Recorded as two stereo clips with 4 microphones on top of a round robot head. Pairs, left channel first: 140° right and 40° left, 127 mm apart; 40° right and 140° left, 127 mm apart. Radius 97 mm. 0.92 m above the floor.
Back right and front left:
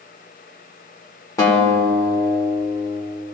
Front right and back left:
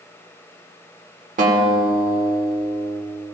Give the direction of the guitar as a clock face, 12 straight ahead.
7 o'clock.